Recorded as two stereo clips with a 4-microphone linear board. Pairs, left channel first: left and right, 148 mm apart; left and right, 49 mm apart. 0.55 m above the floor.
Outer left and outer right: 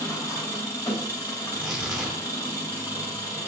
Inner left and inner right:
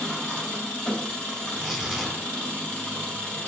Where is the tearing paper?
Centre (ahead or behind), 1.5 m.